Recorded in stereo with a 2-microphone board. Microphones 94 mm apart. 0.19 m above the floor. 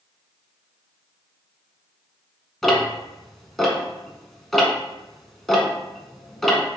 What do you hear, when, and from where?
2.6 s ticking: 5° left (ahead or behind), 1.0 m